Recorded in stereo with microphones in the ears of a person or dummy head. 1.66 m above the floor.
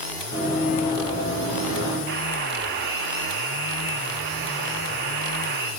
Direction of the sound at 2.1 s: 55° right (ahead or behind).